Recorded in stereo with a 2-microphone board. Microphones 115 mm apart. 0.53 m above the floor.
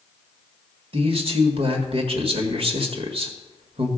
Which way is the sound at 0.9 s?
55° right (ahead or behind).